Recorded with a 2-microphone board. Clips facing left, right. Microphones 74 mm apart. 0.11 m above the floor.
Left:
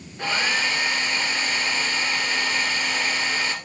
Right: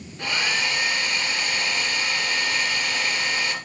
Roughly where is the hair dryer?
Left.